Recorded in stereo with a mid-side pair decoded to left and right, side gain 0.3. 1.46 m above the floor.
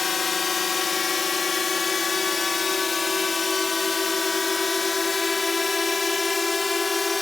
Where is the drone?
50° left; by 7.2 s 30° left.